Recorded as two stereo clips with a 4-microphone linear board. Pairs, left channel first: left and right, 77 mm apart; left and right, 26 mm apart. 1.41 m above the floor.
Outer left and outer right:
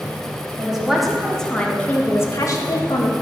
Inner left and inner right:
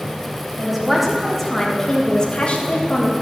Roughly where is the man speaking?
Centre.